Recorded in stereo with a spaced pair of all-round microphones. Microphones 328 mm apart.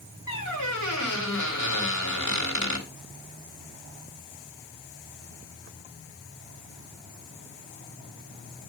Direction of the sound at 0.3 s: 60° left (ahead or behind).